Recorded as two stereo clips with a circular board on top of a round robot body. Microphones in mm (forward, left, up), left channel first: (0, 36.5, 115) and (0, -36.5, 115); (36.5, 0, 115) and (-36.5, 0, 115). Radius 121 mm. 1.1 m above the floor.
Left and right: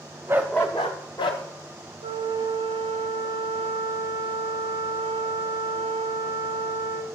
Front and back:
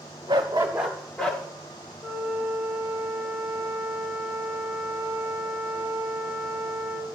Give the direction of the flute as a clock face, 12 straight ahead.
3 o'clock.